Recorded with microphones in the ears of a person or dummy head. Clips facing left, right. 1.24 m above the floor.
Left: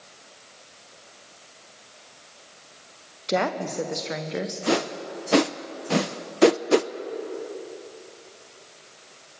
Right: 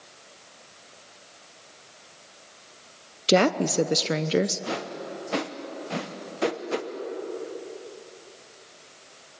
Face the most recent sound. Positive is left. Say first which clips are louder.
# left 7 dB
turn(degrees=55)  # may be behind; listen again after turning